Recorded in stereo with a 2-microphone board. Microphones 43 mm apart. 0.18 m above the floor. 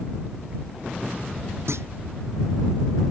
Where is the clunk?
75° right (ahead or behind).